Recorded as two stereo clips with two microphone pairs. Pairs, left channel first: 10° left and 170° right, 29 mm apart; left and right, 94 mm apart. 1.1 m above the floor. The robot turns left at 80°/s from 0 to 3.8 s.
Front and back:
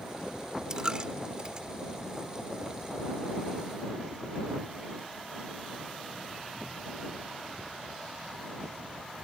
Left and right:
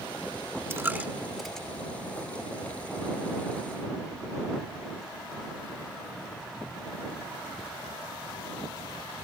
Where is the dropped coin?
125° right; by 1.7 s 160° left.